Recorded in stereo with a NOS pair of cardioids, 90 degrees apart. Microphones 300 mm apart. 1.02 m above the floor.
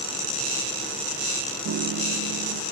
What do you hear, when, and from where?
1.6 s a piano: 55° right